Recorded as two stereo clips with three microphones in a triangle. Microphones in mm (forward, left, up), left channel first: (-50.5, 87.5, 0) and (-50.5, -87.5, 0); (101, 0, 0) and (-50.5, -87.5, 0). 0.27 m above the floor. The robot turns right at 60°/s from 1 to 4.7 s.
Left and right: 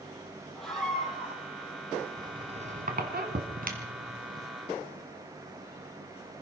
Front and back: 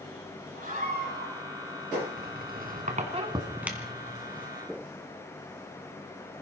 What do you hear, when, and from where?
0.6 s a scream: 175° left, 8.5 m; by 1.4 s 160° right, 8.5 m
2.2 s a squeak: 160° right, 2 m; by 4.5 s 20° right, 2 m